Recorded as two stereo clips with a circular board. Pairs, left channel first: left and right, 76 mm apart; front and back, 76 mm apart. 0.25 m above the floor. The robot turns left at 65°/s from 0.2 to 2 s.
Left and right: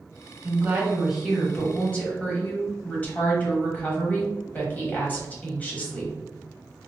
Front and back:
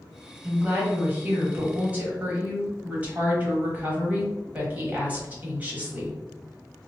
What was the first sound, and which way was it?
A woman speaking, 125° right.